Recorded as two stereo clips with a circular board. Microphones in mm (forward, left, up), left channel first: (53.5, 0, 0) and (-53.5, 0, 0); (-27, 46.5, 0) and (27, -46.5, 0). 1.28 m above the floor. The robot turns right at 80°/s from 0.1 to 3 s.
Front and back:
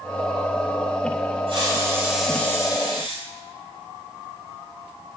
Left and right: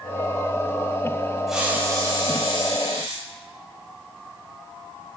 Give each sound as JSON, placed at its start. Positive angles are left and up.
{"t": 1.5, "sound": "a hiss", "azimuth_deg": -150, "distance_m": 4.5}